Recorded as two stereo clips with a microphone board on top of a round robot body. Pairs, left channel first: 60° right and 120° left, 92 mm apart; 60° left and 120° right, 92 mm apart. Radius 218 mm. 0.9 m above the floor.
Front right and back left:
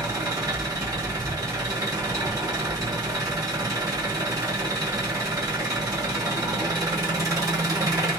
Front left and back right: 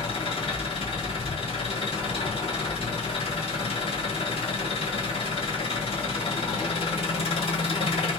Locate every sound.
0.0 s an engine running: 65° left, 1.3 m